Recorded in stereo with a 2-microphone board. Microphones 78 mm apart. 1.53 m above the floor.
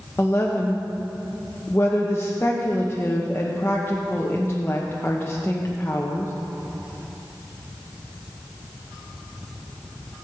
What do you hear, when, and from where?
0.2 s a woman speaking: 30° left (ahead or behind), 1.1 m